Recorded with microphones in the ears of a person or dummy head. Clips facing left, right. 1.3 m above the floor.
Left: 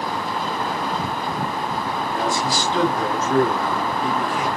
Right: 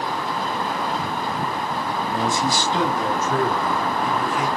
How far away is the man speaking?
About 2.5 m.